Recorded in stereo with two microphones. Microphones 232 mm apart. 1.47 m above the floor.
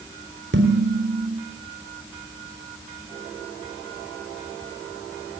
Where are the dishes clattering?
55° right (ahead or behind), 4 m.